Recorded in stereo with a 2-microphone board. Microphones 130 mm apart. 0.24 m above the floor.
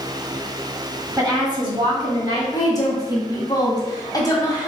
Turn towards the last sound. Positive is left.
turn(degrees=30)  # may be behind; listen again after turning